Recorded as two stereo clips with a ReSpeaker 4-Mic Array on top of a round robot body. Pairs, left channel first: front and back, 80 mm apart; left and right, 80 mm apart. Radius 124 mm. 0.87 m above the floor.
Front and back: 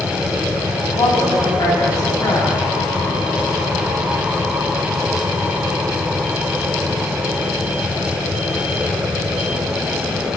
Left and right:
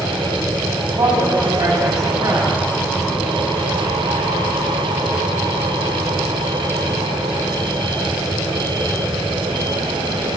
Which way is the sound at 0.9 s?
45° right.